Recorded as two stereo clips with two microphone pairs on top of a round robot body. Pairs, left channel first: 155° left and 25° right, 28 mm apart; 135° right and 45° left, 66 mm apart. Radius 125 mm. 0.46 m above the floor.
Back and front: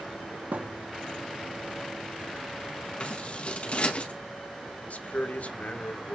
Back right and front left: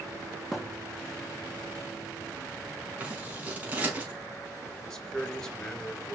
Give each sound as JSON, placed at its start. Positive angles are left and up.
{"t": 0.5, "sound": "a thud", "azimuth_deg": -40, "distance_m": 2.5}
{"t": 3.0, "sound": "scissors", "azimuth_deg": 115, "distance_m": 5.5}
{"t": 4.9, "sound": "a man speaking", "azimuth_deg": 145, "distance_m": 3.0}